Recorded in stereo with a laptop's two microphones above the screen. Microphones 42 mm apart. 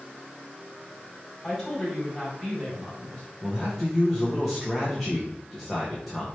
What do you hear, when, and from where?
1.4 s a woman speaking: centre (ahead or behind), 2 m
3.4 s a man speaking: centre (ahead or behind), 0.7 m